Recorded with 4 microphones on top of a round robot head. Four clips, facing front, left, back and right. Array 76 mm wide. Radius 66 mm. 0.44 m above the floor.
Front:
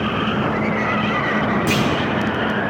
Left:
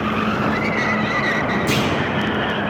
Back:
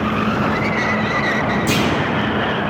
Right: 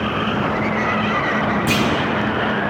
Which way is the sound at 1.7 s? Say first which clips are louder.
Right 2 dB, back 1 dB; 60° right.